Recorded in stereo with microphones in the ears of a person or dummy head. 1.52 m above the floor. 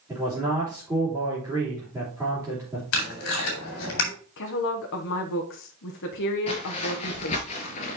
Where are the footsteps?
30° left (ahead or behind), 1.9 m; by 8.0 s 35° left (ahead or behind), 1.8 m.